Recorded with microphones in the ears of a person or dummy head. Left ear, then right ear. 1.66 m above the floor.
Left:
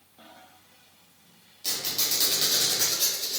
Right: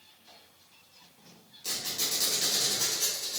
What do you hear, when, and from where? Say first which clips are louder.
1.6 s a squeak: left 4 dB; 40° left (ahead or behind), 2.0 m